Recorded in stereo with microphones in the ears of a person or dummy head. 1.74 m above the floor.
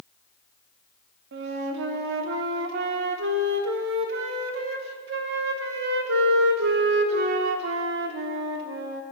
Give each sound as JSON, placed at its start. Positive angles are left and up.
{"t": 1.3, "sound": "a flute", "side_deg": -60, "distance_m": 0.8}